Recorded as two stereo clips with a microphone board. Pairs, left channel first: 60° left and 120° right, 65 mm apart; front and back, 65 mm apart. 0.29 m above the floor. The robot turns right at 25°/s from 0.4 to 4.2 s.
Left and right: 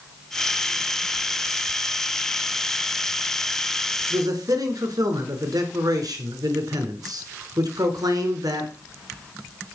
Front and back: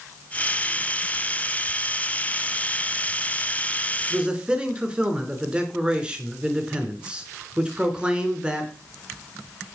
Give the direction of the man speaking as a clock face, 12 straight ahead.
4 o'clock.